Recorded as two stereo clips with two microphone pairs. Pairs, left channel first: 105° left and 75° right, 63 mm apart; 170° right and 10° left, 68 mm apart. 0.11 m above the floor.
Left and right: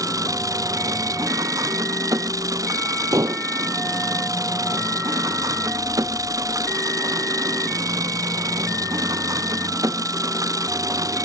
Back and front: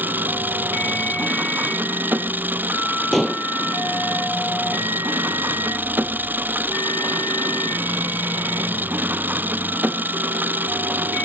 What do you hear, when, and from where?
0.0 s an engine running: 50° right
3.1 s dishes clattering: 80° right